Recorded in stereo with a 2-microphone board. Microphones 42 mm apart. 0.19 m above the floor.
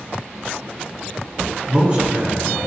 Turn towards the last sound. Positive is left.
turn(degrees=-30)  # may be behind; listen again after turning